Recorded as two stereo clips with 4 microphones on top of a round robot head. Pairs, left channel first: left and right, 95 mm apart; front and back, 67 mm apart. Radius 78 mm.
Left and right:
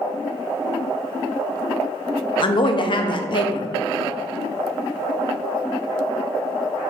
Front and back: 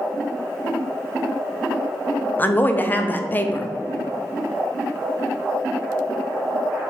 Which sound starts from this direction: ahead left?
A woman speaking, at 2.4 s.